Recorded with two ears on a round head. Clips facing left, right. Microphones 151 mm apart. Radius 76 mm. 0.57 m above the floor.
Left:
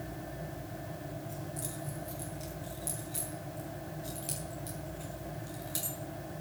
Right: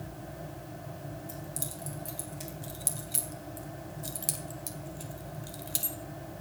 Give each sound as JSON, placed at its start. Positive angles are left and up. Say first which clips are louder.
{"t": 1.3, "sound": "keys jangling", "louder": "left 1 dB", "side_deg": -80, "distance_m": 4.0}